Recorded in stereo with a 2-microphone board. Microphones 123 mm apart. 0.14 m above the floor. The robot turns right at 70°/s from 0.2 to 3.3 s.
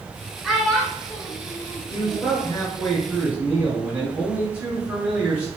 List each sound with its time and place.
0.4 s a child speaking: 5° right (ahead or behind), 1.2 m; by 2.4 s 30° left (ahead or behind), 1.2 m
1.9 s a man speaking: 100° left, 2.0 m; by 5.5 s 160° right, 2.0 m